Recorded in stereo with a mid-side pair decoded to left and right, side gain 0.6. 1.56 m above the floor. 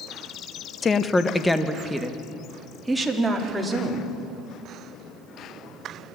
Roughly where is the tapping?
No tapping in this recording.